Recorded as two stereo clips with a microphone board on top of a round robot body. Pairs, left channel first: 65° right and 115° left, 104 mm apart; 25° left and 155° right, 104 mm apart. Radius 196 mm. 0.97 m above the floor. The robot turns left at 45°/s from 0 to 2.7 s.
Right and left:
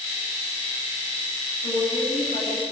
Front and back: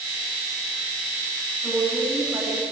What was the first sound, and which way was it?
A woman speaking, 60° right.